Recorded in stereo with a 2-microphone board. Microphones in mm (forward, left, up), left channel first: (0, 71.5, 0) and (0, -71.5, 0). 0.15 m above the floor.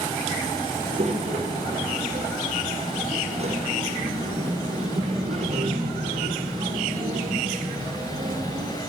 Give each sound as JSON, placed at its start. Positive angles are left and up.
{"t": 0.8, "sound": "a child speaking", "side_deg": -45, "distance_m": 2.5}